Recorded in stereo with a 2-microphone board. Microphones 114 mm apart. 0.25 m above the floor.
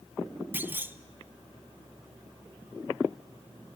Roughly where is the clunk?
Centre.